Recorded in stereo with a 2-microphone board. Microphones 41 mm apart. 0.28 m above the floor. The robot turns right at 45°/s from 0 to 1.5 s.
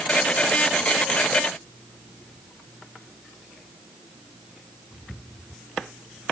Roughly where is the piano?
I don't hear a piano.